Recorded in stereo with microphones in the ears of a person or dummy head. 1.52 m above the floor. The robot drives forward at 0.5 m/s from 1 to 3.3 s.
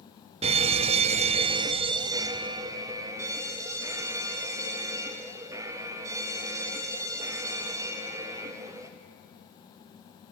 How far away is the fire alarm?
About 0.6 m.